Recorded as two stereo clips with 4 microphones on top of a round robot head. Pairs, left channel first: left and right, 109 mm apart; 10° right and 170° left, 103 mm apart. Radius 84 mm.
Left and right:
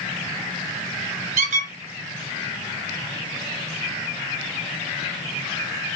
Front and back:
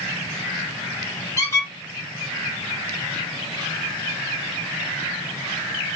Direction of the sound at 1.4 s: 80° right.